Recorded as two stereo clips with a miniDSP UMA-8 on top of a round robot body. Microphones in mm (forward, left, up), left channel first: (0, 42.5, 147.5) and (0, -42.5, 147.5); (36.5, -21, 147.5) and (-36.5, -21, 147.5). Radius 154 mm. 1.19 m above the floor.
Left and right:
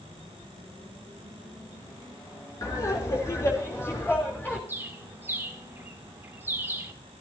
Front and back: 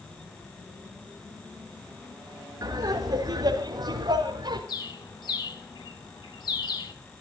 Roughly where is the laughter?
Behind left.